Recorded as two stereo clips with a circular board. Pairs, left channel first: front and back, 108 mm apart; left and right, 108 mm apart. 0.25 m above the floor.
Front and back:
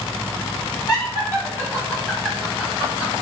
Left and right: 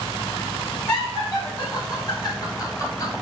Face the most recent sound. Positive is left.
turn(degrees=120)